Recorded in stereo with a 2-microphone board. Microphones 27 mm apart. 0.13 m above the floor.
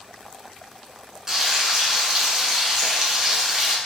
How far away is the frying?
About 0.7 m.